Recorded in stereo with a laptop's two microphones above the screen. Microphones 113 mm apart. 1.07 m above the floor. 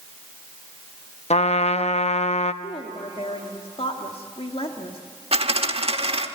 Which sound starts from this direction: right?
A dropped coin, at 5.3 s.